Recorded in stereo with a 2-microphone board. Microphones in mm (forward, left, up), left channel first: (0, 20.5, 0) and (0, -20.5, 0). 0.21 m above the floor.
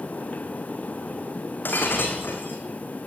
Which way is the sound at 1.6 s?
55° left (ahead or behind).